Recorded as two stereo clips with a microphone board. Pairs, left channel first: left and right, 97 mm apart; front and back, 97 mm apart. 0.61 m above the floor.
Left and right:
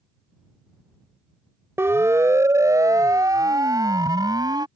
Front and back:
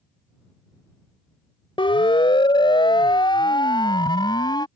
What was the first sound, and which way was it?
A siren, 25° right.